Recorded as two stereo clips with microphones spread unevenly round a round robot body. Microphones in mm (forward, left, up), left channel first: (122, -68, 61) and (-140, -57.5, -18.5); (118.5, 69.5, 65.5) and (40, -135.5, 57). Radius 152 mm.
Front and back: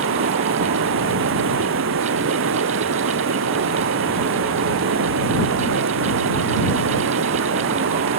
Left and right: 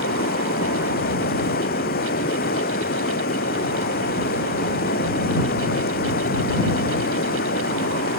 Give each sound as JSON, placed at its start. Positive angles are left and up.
{"t": 0.0, "sound": "running water", "azimuth_deg": 130}